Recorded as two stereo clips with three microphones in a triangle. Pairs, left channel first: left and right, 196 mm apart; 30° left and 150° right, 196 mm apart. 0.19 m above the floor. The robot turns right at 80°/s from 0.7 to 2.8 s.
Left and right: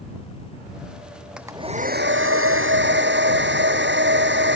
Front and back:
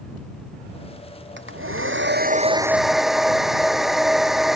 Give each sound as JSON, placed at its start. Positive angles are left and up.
{"t": 1.4, "sound": "a hair dryer", "azimuth_deg": -175}